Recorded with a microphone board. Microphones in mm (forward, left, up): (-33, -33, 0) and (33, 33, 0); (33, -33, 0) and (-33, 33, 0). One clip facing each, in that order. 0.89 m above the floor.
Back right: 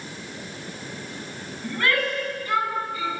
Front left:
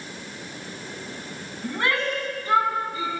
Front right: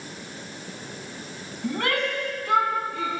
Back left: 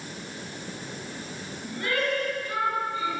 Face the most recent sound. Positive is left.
turn(degrees=-15)